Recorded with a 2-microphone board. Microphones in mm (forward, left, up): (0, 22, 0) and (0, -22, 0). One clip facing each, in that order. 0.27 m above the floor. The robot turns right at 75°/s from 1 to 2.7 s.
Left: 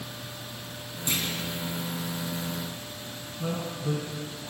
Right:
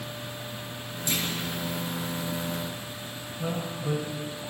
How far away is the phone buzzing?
I don't hear a phone buzzing.